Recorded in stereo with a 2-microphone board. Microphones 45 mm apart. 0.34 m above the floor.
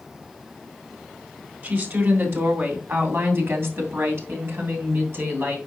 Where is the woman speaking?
50° right (ahead or behind), 3 m.